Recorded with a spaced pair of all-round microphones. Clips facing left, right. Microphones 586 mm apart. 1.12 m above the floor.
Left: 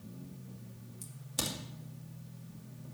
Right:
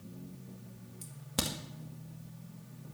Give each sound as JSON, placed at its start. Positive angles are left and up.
{"t": 1.0, "sound": "a crack", "side_deg": -75, "distance_m": 2.5}